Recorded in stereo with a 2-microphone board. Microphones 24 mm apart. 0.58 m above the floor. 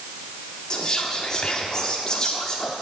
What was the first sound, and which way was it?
Whispering, 30° left (ahead or behind).